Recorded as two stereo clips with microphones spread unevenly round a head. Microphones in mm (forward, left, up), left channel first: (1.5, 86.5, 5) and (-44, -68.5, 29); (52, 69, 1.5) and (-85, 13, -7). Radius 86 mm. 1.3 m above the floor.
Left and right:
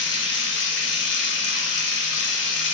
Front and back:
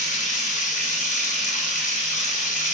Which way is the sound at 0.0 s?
60° left.